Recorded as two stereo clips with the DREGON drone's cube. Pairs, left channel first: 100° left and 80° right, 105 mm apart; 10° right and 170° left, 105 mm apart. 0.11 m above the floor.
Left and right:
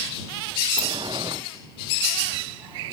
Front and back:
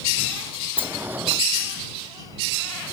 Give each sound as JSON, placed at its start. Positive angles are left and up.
{"t": 0.8, "sound": "a sliding door", "azimuth_deg": -120}